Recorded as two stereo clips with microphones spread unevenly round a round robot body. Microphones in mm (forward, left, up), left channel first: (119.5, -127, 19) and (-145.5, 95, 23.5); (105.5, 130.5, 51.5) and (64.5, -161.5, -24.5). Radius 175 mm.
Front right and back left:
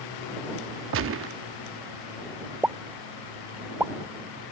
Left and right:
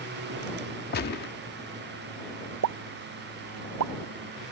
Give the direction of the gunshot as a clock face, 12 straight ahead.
7 o'clock.